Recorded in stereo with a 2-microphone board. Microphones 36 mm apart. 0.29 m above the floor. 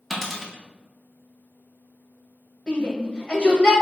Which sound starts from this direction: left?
A shout, at 2.7 s.